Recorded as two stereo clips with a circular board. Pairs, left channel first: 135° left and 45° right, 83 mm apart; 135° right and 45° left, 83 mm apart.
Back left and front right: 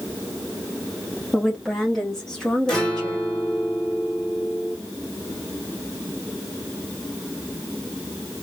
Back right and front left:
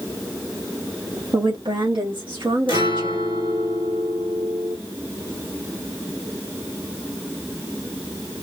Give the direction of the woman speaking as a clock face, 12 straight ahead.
11 o'clock.